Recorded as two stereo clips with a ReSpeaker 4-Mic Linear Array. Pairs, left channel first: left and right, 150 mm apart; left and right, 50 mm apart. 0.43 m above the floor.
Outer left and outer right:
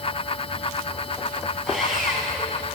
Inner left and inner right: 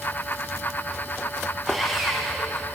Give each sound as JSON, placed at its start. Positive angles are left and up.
{"t": 1.7, "sound": "sawing", "side_deg": 0, "distance_m": 4.5}